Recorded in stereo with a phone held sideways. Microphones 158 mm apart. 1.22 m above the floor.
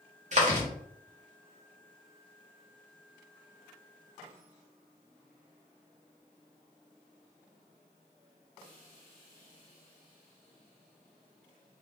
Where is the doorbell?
No doorbell in this recording.